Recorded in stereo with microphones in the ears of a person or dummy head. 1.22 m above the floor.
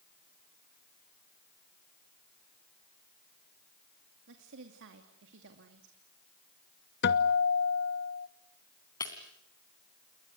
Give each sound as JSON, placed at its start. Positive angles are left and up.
{"t": 4.3, "sound": "a woman speaking", "side_deg": -65, "distance_m": 2.5}
{"t": 7.0, "sound": "a guitar", "side_deg": 50, "distance_m": 0.9}
{"t": 9.0, "sound": "breaking glass", "side_deg": 20, "distance_m": 2.5}